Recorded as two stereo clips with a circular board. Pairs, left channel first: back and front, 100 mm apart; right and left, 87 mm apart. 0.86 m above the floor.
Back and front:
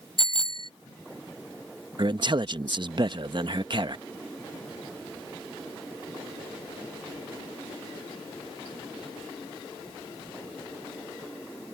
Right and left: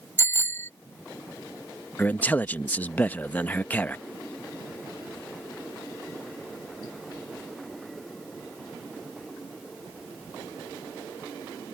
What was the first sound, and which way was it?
A bicycle bell, 150° right.